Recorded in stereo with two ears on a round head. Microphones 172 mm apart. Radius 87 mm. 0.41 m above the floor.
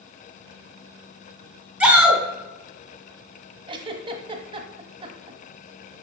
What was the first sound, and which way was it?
A shout, 5° right (ahead or behind).